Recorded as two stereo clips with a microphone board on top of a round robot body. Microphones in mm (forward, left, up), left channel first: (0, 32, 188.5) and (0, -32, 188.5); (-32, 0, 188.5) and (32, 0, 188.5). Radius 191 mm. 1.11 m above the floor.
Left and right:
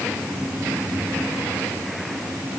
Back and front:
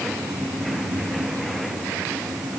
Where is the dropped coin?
I don't hear a dropped coin.